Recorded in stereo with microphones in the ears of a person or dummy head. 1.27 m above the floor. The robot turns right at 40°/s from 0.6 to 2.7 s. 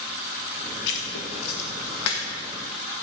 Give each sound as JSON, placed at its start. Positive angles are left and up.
{"t": 0.9, "sound": "writing", "side_deg": 60, "distance_m": 1.0}